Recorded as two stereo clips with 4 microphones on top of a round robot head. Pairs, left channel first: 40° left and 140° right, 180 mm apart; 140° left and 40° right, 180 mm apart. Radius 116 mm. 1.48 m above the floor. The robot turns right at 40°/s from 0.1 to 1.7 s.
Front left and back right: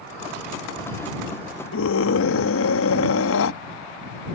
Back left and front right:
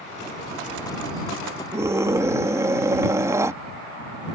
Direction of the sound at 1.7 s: 35° left.